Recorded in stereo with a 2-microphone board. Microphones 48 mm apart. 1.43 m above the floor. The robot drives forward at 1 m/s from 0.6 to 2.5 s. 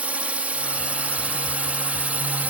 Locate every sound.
0.0 s a drone: 30° right (ahead or behind)